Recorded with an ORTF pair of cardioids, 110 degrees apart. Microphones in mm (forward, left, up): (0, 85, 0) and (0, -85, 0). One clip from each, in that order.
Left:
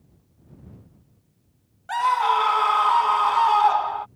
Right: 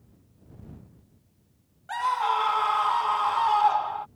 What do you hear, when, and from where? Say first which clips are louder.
1.9 s a scream: left 5 dB; 25° left